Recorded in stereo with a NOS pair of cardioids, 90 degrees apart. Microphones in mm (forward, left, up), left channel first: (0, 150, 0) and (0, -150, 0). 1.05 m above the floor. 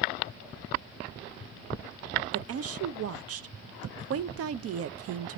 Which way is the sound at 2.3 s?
55° right.